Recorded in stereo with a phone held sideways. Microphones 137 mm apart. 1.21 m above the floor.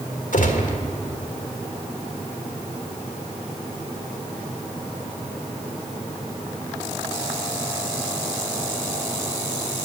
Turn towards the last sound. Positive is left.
turn(degrees=75)  # may be behind; listen again after turning